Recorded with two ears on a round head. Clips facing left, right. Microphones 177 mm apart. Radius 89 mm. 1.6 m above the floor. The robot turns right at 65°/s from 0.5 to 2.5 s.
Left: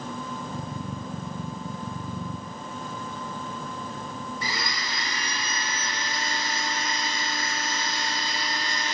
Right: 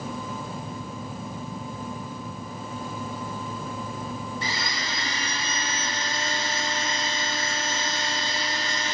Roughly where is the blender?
Right.